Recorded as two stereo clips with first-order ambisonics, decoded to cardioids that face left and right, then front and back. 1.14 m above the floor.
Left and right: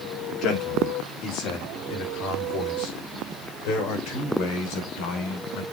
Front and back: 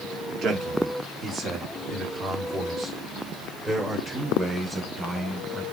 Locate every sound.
0.4 s a man speaking: 130° left, 3 m; by 5.6 s 100° left, 4.5 m